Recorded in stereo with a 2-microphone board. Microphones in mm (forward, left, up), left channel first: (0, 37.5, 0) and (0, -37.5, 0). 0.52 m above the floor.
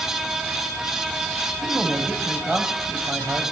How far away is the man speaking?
About 3 m.